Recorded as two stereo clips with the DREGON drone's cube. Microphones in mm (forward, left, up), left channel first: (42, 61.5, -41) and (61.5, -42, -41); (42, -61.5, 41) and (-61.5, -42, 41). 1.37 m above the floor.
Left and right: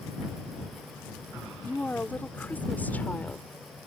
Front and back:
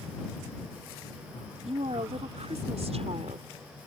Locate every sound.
1.7 s a woman speaking: 175° left